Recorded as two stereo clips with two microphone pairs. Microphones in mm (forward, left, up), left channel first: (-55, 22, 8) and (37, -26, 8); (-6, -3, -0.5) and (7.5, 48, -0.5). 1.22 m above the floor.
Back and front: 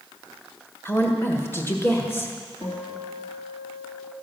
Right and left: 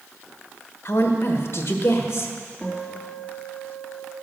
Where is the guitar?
175° left, 3 m.